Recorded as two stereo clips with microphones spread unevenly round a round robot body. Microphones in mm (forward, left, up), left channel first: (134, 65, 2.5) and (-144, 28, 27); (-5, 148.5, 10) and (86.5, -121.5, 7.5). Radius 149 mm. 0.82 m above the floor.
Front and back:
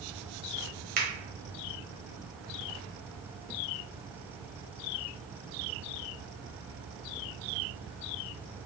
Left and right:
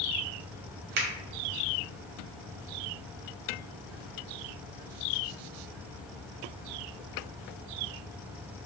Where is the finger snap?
115° right, 0.6 m.